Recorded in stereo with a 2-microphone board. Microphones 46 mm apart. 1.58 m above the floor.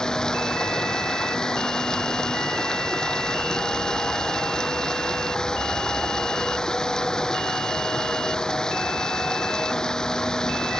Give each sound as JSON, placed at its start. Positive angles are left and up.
{"t": 0.0, "sound": "running water", "side_deg": 15}